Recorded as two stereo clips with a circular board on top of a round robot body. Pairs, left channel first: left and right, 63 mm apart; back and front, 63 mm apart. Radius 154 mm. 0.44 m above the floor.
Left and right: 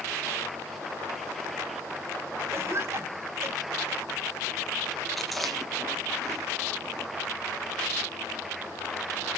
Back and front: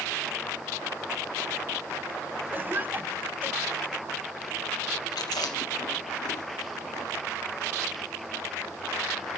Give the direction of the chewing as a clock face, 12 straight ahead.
6 o'clock.